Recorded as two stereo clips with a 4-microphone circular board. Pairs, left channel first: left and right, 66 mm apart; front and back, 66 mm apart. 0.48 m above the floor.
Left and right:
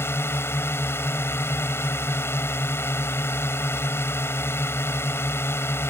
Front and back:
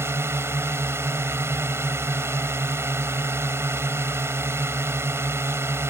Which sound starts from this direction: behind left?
A drone, at 0.0 s.